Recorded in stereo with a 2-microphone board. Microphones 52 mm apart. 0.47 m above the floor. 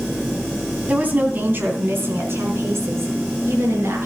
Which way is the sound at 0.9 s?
35° right (ahead or behind).